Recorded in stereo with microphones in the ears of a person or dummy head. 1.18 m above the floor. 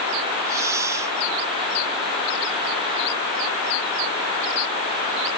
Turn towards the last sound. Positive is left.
turn(degrees=-15)  # may be behind; listen again after turning